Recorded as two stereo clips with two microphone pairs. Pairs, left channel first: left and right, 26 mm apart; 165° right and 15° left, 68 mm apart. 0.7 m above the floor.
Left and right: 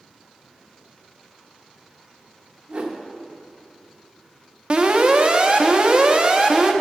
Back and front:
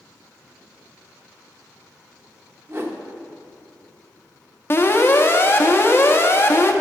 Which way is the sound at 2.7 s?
40° right.